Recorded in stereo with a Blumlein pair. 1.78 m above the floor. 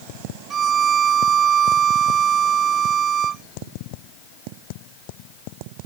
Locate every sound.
0.5 s a violin: 25° right